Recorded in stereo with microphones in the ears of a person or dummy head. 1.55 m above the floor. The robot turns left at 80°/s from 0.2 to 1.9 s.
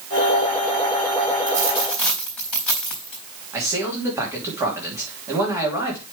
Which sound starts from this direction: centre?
A man speaking, at 3.5 s.